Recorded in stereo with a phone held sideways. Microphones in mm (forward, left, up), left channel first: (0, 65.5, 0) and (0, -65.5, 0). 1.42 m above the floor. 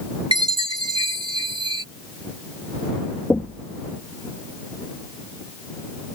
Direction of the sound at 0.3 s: 40° right (ahead or behind).